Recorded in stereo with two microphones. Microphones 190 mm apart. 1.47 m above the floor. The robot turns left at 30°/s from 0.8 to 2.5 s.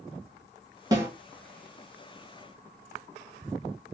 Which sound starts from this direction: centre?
A snare drum, at 0.9 s.